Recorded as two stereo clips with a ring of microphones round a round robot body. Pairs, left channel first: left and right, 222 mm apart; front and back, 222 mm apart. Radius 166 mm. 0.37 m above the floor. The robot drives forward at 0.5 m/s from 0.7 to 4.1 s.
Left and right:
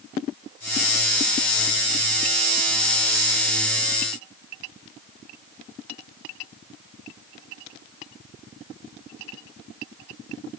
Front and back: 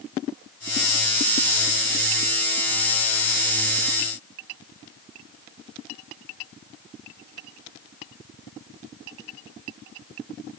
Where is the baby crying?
I don't hear a baby crying.